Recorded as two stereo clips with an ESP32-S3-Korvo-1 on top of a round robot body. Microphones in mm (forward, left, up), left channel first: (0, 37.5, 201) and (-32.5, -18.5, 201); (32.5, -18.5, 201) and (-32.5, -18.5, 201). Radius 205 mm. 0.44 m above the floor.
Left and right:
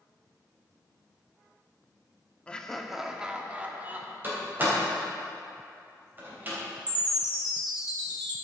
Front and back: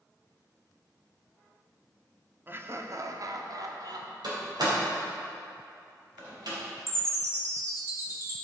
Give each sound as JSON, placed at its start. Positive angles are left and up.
{"t": 2.5, "sound": "laughter", "azimuth_deg": 130, "distance_m": 1.1}
{"t": 4.2, "sound": "a door slam", "azimuth_deg": 180, "distance_m": 3.5}
{"t": 6.9, "sound": "a chime", "azimuth_deg": -130, "distance_m": 2.5}